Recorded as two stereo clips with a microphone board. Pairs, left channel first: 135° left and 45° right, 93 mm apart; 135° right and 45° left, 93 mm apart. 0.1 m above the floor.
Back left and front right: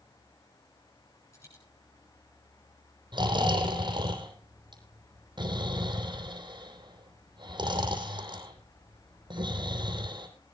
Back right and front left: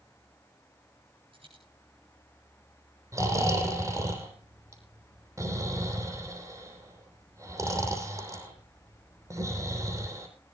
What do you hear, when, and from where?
1.3 s a dropped coin: 75° left, 8.5 m
3.1 s snoring: 10° right, 3 m